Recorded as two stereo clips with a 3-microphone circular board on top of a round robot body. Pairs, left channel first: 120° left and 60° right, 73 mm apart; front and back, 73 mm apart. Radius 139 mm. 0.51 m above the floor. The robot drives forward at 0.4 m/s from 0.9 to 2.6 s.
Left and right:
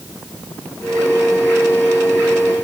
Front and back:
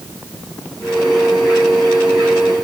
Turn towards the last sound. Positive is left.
No sound to turn to.